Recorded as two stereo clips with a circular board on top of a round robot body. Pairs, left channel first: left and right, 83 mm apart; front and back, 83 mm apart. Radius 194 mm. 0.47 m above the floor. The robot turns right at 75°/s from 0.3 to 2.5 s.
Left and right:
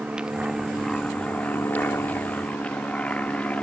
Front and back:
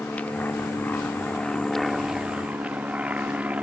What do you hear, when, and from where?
0.0 s an aircraft: 30° right; by 3.6 s 135° left